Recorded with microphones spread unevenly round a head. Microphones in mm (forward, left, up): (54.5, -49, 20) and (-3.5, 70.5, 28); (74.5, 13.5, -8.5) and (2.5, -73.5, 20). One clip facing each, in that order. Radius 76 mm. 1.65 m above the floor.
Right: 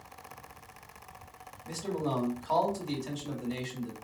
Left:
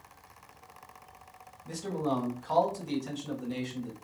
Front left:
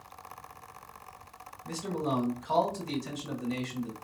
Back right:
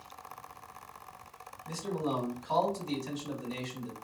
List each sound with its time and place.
1.6 s a man speaking: 25° left, 2 m